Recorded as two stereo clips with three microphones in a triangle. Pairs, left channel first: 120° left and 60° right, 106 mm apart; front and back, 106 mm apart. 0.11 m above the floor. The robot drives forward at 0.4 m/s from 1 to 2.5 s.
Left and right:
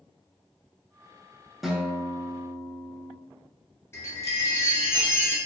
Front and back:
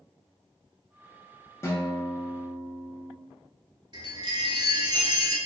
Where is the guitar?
30° left, 0.5 m; by 3.2 s 125° left, 0.5 m.